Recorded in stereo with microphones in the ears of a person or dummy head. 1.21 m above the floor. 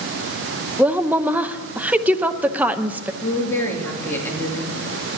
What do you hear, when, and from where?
0.8 s a woman speaking: 5° right (ahead or behind), 0.6 m
3.2 s a woman speaking: 15° left (ahead or behind), 2.5 m